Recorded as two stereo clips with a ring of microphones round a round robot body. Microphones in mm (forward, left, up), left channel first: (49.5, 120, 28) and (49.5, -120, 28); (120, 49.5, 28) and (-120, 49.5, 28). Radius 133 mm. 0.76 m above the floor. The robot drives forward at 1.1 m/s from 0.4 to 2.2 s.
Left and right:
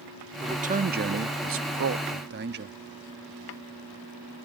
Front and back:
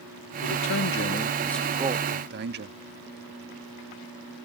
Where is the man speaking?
25° right; by 2.8 s 135° right.